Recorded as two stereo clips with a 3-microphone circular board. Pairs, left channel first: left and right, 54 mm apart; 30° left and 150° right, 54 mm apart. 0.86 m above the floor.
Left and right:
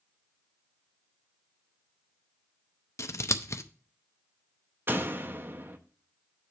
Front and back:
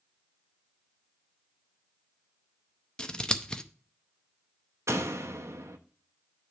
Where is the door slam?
130° right, 0.8 m.